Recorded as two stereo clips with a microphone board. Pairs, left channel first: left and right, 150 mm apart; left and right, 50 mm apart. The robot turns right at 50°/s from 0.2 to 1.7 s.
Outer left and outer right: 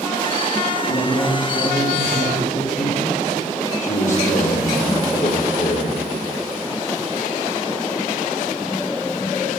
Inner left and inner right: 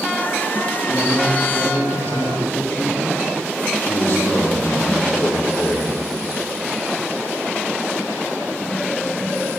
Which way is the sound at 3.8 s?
60° left (ahead or behind).